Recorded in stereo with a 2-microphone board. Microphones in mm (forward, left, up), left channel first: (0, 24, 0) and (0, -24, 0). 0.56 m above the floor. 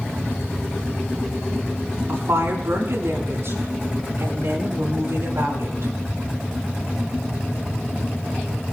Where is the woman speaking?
70° right (ahead or behind), 5 m; by 5.9 s 60° right (ahead or behind), 6.5 m.